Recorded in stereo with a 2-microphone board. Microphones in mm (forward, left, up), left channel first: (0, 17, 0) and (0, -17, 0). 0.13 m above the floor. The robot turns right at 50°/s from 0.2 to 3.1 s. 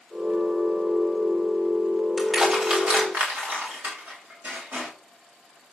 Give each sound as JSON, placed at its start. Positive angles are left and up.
{"t": 2.2, "sound": "crushing", "side_deg": 0, "distance_m": 8.0}